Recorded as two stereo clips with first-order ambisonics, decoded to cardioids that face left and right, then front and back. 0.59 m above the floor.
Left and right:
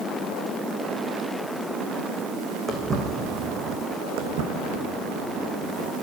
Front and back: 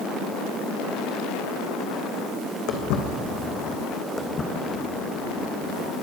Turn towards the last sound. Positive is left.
turn(degrees=-55)